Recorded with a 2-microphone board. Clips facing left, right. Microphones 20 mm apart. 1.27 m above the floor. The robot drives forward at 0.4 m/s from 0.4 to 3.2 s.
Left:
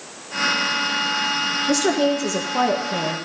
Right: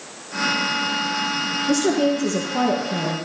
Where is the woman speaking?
25° left (ahead or behind), 0.9 m; by 3.2 s 15° left (ahead or behind), 1.4 m.